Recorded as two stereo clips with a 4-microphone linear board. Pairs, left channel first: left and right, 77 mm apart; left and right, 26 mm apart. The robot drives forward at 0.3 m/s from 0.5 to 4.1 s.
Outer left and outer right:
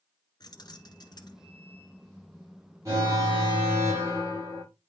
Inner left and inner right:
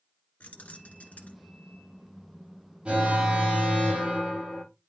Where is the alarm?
40° right (ahead or behind), 5.5 m; by 4.6 s 35° right (ahead or behind), 6 m.